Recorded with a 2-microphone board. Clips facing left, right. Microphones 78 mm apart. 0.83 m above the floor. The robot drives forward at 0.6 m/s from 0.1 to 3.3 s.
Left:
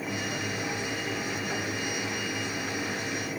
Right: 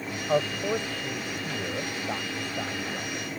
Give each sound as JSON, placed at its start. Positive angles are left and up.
{"t": 0.3, "sound": "a man speaking", "side_deg": -70}